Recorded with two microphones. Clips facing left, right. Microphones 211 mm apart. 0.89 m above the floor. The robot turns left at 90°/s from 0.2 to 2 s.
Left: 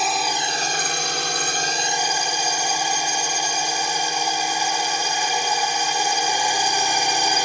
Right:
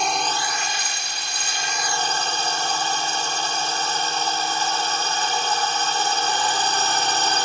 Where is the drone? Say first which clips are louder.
Even; 175° left; by 7.5 s 15° left.